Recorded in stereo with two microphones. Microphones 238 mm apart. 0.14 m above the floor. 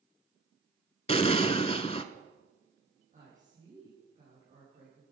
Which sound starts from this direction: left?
An explosion, at 1.1 s.